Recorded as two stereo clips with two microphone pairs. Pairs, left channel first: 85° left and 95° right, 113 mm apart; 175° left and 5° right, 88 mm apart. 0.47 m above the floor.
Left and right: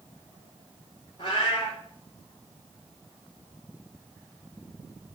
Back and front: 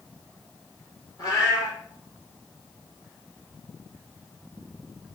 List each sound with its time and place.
1.2 s a cat meowing: 130° left, 5 m